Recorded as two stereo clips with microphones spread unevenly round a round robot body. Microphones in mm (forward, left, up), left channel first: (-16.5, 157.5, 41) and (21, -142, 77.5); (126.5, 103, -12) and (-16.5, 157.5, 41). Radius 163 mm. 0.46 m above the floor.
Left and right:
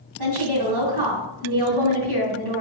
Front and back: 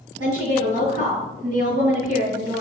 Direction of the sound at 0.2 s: 95° right.